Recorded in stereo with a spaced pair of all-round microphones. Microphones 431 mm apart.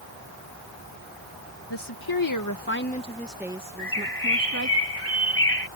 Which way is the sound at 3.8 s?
30° left (ahead or behind).